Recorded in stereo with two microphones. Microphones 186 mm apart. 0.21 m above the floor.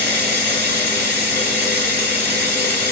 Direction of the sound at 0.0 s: 55° right (ahead or behind).